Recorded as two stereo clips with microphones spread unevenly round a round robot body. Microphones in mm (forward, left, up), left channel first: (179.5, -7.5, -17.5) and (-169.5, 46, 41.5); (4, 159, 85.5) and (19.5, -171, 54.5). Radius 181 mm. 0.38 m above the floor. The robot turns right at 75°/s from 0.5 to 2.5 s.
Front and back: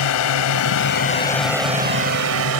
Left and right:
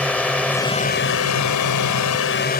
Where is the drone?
5° left; by 2.6 s 155° left.